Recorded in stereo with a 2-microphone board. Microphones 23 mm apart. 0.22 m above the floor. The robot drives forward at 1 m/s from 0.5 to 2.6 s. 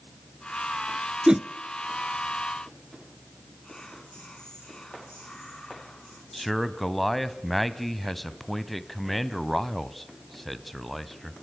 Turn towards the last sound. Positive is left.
turn(degrees=0)  # may be behind; listen again after turning